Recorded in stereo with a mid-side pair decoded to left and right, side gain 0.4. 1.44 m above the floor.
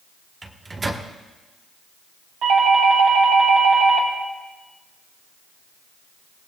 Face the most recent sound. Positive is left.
turn(degrees=-70)